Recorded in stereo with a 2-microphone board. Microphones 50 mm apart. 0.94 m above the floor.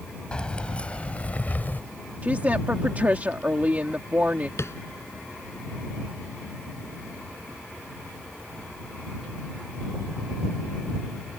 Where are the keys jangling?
20° left (ahead or behind); by 1.8 s 40° left (ahead or behind).